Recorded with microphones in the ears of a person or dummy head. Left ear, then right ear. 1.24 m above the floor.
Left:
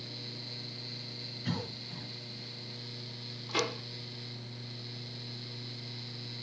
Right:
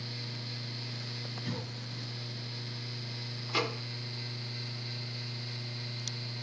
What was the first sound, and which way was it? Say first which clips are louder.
A cough: left 1 dB; 15° left (ahead or behind).